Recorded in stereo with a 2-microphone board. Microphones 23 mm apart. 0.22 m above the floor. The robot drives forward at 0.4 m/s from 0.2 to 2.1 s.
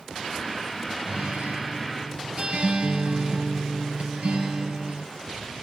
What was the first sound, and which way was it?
A guitar, 60° right (ahead or behind).